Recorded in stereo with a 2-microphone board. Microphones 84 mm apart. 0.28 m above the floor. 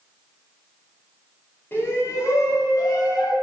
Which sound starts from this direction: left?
A shout, at 1.7 s.